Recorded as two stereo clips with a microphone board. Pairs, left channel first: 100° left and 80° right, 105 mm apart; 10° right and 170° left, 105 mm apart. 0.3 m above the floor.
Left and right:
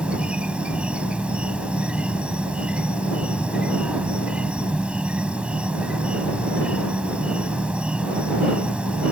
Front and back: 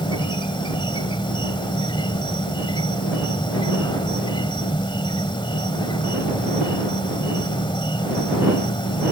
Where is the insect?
5° right.